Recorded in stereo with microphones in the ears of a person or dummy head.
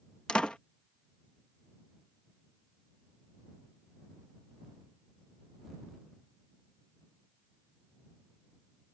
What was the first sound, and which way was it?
A door slam, 5° left (ahead or behind).